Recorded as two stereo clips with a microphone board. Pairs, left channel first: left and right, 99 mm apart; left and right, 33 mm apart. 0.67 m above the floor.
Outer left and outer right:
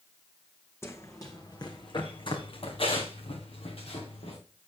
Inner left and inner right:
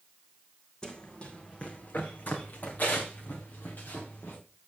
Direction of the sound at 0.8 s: 25° left (ahead or behind).